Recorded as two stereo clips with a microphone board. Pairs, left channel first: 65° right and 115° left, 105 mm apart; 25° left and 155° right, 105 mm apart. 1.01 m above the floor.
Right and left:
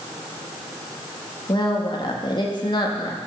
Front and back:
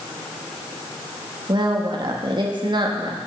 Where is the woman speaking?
115° right, 1.4 m.